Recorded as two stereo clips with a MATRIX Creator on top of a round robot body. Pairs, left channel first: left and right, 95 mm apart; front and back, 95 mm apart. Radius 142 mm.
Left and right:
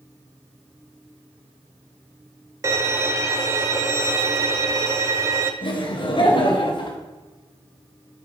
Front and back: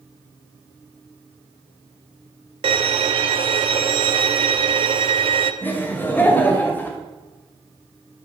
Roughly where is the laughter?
Left.